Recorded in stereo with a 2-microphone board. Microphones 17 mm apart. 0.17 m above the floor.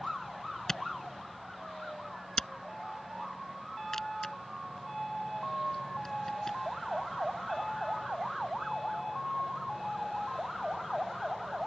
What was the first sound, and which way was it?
A camera shutter, 25° left (ahead or behind).